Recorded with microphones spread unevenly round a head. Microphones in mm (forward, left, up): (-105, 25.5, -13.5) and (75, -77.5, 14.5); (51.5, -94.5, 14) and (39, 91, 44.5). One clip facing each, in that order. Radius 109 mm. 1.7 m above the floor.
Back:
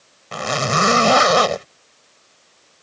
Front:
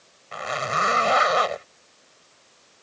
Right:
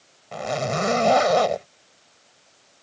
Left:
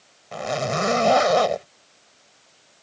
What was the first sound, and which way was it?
A zipper, straight behind.